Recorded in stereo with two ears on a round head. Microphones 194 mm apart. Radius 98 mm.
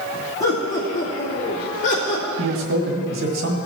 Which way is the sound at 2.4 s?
65° right (ahead or behind).